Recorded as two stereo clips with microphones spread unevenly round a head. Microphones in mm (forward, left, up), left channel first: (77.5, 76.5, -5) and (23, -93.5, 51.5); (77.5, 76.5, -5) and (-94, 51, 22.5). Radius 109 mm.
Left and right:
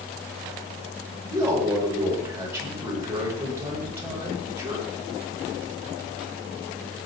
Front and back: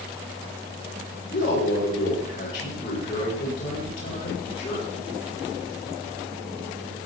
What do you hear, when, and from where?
1.3 s a man speaking: 30° right, 8.5 m